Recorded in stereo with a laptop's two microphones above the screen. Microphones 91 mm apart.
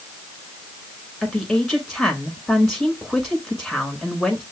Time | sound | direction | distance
1.2 | a woman speaking | centre (ahead or behind) | 5 m